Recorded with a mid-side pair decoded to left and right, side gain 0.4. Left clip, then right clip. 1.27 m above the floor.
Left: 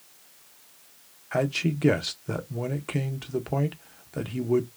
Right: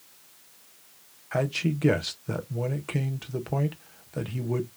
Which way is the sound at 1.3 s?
10° left.